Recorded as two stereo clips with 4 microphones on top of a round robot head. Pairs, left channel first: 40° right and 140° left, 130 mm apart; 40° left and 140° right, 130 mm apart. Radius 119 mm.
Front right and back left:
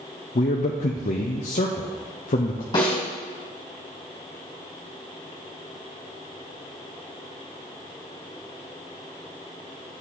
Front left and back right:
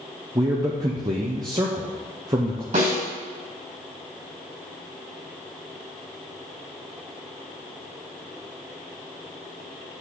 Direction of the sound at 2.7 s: 100° right.